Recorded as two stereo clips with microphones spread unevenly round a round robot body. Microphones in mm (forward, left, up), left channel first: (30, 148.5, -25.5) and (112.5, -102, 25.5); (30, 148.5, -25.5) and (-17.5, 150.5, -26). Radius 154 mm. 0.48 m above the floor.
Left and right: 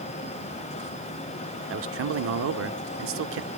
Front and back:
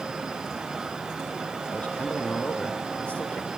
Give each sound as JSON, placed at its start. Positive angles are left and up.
{"t": 1.7, "sound": "a man speaking", "azimuth_deg": -55, "distance_m": 1.6}